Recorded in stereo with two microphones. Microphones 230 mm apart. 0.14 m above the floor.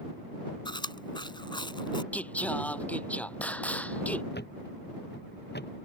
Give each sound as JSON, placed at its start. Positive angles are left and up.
{"t": 0.7, "sound": "chewing", "side_deg": 20}
{"t": 2.1, "sound": "singing", "side_deg": 5}
{"t": 4.3, "sound": "a thud", "side_deg": 45}